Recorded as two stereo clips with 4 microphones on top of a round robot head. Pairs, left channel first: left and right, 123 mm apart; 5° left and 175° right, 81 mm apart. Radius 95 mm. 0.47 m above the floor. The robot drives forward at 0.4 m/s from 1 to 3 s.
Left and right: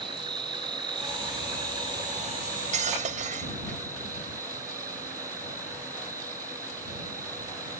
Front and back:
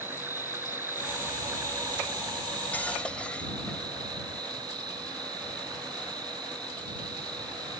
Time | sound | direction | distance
0.0 | an insect | 125° right | ?
2.4 | cutlery clinking | 65° right | ?